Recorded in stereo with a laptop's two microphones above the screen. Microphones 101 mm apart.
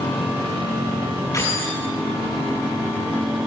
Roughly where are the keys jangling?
Left.